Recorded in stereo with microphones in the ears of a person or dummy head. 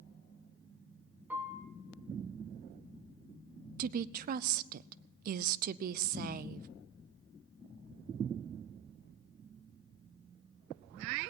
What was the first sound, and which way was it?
A piano, 10° right (ahead or behind).